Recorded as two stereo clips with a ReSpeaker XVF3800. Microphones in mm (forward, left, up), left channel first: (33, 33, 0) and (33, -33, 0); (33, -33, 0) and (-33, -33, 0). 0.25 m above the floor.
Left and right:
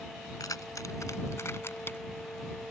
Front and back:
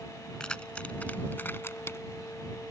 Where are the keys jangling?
75° left; by 2.0 s 35° left.